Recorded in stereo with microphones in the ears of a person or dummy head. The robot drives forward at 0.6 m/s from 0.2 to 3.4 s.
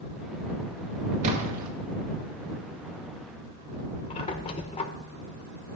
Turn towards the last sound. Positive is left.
turn(degrees=30)  # may be behind; listen again after turning